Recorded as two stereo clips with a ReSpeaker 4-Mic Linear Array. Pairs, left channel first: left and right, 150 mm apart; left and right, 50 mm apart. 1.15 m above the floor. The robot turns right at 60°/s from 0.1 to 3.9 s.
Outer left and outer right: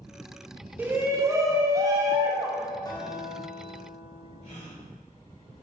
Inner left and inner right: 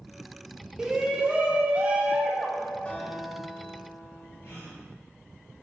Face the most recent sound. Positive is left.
turn(degrees=40)  # may be behind; listen again after turning